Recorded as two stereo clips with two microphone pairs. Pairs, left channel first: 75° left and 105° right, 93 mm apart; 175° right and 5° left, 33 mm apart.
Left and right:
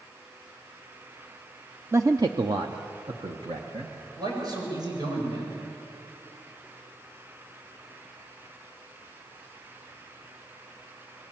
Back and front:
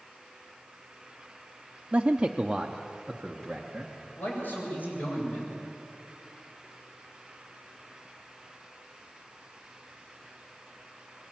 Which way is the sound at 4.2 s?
150° right.